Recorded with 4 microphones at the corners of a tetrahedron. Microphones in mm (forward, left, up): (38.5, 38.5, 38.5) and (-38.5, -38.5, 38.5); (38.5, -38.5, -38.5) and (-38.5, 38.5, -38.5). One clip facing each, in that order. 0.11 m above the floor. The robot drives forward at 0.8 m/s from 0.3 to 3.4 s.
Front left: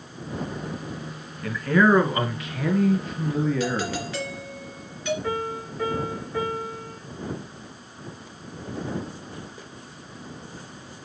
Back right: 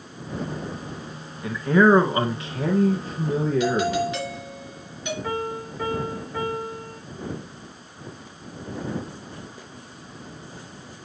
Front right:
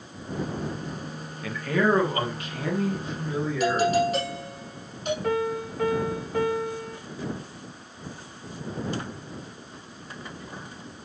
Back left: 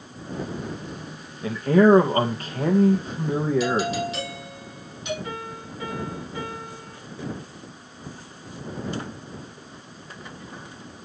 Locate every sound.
1.4 s a man speaking: 165° left, 1.3 m; by 4.0 s 175° left, 2.5 m
3.6 s a doorbell: 65° right, 3.5 m
5.2 s a piano: 60° right, 4.5 m